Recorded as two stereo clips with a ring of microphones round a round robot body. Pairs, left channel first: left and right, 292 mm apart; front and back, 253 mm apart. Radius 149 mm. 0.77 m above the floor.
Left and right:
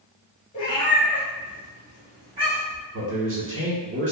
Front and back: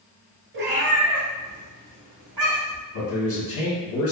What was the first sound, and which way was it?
A cat meowing, 150° left.